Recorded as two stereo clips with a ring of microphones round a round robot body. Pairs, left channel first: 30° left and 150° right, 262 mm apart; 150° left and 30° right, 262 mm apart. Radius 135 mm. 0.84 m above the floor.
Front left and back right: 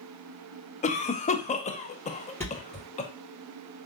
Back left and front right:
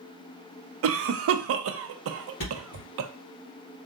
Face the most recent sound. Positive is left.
turn(degrees=110)